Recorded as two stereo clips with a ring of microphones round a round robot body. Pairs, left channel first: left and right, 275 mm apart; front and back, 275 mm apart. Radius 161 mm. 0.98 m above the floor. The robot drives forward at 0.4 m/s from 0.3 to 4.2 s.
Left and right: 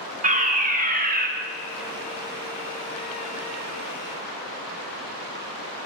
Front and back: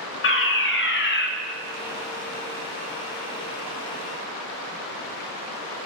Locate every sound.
0.2 s a fire alarm: 35° right, 2 m; by 1.3 s 40° right, 1.9 m